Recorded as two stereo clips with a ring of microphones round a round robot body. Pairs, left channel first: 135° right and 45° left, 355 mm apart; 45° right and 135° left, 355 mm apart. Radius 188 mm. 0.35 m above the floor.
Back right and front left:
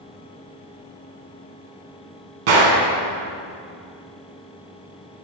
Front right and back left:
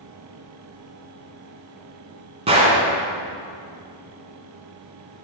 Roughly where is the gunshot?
Ahead left.